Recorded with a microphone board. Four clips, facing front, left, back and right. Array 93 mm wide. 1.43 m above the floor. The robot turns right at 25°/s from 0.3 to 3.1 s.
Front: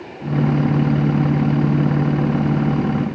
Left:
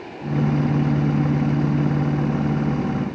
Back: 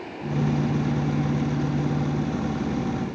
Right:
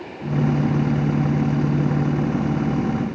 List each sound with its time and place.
Only background noise.